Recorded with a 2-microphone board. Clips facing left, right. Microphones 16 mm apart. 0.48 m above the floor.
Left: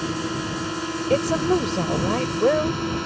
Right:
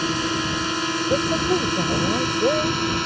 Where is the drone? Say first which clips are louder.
Right 4 dB; 45° right (ahead or behind).